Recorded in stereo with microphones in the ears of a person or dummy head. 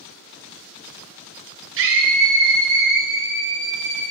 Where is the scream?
65° right (ahead or behind), 1.3 m; by 4.0 s 50° right (ahead or behind), 3.5 m.